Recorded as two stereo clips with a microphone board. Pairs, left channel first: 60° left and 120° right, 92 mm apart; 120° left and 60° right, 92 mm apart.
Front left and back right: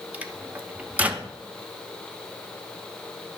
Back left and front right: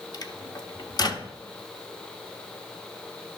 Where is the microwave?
165° left, 0.8 m.